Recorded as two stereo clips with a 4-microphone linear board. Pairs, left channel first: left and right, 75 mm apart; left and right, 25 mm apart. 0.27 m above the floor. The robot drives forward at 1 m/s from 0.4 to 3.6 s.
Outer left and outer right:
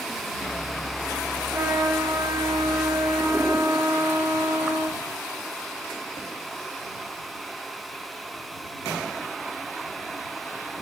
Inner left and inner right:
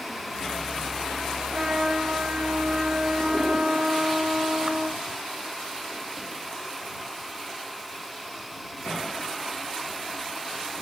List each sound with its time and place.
1.5 s a trumpet: 45° right (ahead or behind), 3.5 m; by 5.0 s 70° right (ahead or behind), 2.5 m